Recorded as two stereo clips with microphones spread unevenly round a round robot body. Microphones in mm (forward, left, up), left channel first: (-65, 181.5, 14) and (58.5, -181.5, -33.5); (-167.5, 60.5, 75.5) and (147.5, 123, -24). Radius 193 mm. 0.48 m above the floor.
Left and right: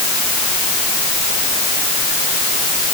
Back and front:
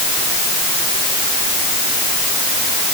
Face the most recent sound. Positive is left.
No sound to turn to.